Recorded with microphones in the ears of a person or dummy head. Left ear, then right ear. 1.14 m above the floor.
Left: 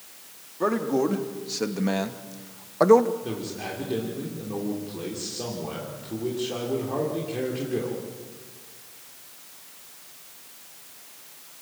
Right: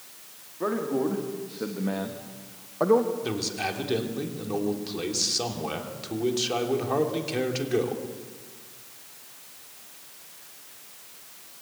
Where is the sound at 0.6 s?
80° left, 2.5 m; by 3.1 s 55° left (ahead or behind), 1.0 m.